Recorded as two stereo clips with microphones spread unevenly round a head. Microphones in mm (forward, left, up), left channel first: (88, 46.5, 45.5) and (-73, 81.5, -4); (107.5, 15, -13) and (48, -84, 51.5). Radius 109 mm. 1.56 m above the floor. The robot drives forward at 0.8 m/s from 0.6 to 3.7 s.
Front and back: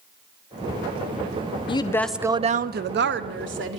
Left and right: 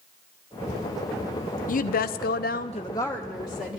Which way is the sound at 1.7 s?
35° left.